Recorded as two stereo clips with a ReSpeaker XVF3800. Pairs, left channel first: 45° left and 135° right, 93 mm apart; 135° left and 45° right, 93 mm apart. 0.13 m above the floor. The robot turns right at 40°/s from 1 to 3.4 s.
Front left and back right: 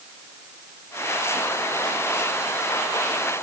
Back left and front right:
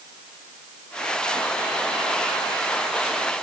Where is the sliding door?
I don't hear a sliding door.